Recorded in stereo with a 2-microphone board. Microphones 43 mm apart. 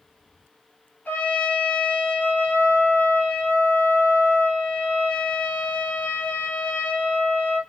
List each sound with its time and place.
1.1 s a trumpet: 40° left (ahead or behind), 1.8 m